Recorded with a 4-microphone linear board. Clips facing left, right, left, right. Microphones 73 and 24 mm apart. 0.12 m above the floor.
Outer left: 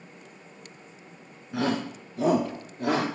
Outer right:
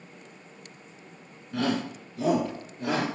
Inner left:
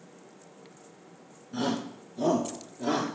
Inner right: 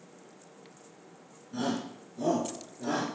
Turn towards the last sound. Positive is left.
turn(degrees=45)  # may be behind; listen again after turning